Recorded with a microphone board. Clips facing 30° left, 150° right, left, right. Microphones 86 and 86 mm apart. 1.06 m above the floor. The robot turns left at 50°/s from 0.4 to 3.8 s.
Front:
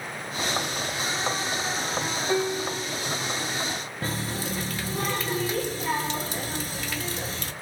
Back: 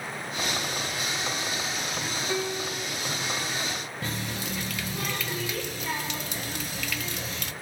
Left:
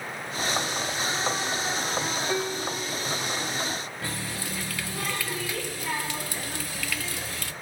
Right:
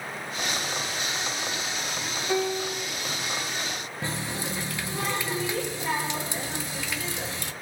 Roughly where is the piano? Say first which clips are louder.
Front 6 dB, right 7 dB; ahead.